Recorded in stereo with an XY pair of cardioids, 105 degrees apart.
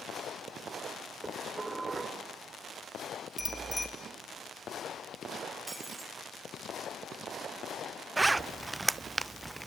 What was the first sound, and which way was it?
Dishes clattering, 25° right.